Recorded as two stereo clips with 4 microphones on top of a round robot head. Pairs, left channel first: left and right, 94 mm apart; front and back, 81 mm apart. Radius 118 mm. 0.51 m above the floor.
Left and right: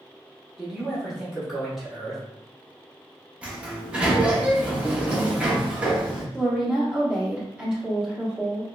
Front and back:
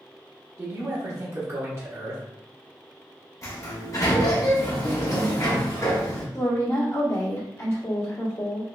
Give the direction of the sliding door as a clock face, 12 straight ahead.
1 o'clock.